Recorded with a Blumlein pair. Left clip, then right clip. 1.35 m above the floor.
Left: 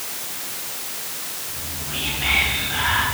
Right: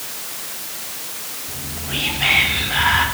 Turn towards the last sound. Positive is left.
turn(degrees=-65)